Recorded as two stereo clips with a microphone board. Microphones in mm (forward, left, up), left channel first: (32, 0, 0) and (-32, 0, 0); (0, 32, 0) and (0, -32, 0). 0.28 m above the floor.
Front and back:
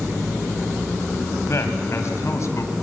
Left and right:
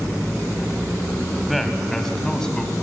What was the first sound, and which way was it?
A man speaking, 5° right.